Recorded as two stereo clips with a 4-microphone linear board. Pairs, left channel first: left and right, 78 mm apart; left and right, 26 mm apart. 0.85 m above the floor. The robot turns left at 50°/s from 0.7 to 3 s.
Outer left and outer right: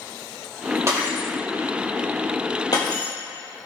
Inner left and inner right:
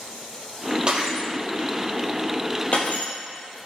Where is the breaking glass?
35° right (ahead or behind), 3 m; by 3.1 s 65° left (ahead or behind), 3 m.